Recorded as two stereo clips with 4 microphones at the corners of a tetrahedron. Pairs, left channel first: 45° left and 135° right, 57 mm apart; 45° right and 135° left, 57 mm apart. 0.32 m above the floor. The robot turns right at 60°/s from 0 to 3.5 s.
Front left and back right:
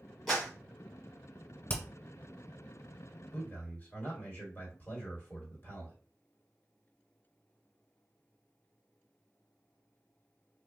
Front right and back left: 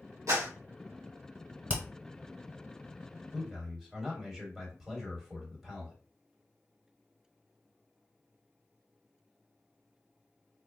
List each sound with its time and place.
0.3 s a clap: 135° left, 2.0 m; by 0.5 s 150° left, 2.0 m
1.7 s hammering: 85° left, 1.0 m; by 1.8 s 95° left, 1.0 m
3.3 s a man speaking: 45° left, 1.5 m; by 6.0 s 55° left, 1.5 m